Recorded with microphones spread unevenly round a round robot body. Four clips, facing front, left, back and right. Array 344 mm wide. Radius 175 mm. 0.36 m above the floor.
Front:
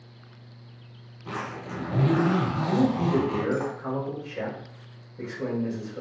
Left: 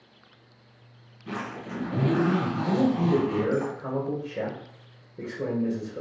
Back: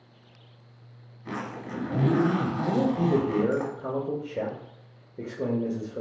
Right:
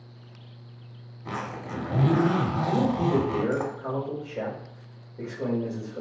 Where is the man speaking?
165° left, 1.2 m.